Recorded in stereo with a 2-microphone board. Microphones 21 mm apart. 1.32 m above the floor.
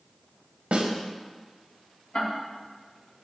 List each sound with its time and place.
0.7 s a snare drum: 75° right (ahead or behind), 0.8 m
2.1 s ticking: 75° left (ahead or behind), 1.8 m